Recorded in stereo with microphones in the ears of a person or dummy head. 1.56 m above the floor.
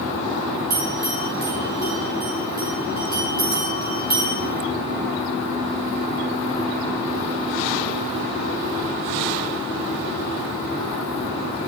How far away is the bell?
About 2.5 m.